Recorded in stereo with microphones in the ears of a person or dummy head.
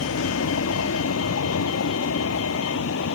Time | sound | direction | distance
0.0 | a vehicle | 90° left | ?